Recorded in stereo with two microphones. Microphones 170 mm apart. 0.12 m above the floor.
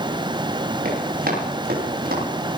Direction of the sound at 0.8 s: 60° right (ahead or behind).